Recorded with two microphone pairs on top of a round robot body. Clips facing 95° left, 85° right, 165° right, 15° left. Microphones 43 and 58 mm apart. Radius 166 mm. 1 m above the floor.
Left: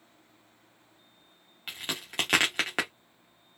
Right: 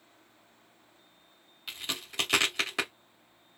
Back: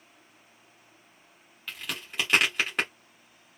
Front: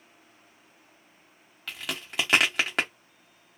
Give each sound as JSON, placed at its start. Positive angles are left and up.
{"t": 1.7, "sound": "a crack", "azimuth_deg": 40, "distance_m": 0.7}